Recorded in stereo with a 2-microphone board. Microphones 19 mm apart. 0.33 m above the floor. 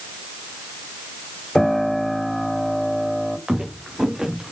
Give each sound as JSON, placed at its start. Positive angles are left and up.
{"t": 1.6, "sound": "a piano", "side_deg": 25, "distance_m": 1.8}
{"t": 3.5, "sound": "footsteps", "side_deg": -40, "distance_m": 4.0}